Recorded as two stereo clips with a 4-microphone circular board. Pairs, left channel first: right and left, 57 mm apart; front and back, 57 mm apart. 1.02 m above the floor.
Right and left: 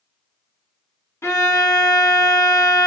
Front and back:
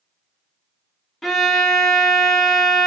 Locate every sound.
1.2 s a violin: 85° right, 0.9 m